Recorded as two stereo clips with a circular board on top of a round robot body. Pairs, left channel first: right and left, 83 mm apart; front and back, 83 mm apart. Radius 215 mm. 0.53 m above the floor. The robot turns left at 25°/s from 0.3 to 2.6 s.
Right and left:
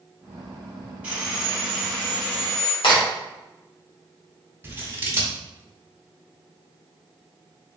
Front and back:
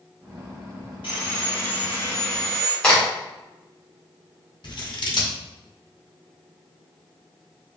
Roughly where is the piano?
No piano in this recording.